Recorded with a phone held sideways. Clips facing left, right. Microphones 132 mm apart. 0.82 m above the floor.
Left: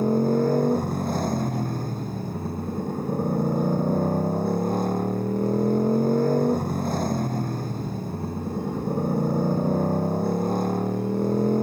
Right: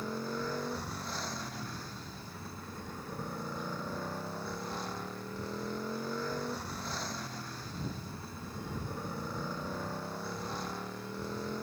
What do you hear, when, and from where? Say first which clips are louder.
0.0 s a motorcycle: left 16 dB; 50° left (ahead or behind)